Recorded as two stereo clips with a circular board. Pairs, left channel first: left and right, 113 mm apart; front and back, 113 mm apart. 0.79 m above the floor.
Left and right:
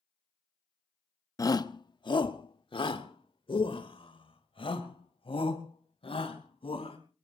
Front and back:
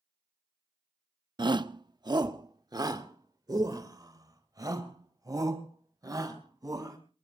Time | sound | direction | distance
1.4 | a shout | 140° left | 0.7 m